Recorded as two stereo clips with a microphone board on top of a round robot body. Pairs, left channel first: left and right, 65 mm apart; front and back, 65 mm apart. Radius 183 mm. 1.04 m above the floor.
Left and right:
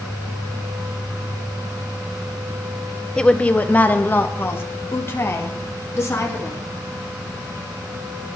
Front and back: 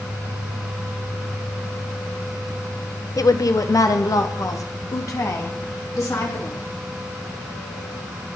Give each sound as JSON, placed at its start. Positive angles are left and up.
{"t": 3.2, "sound": "a woman speaking", "azimuth_deg": 15, "distance_m": 1.1}